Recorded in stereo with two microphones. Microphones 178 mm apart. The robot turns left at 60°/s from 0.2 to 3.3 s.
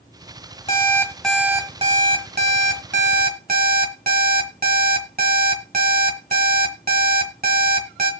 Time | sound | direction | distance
0.7 | an alarm clock | 35° left | 1.8 m